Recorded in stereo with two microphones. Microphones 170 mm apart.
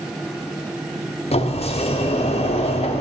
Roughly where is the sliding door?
Left.